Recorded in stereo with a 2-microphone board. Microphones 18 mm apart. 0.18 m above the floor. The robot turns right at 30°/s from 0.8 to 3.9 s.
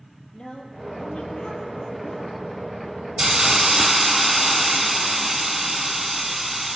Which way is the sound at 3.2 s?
25° right (ahead or behind).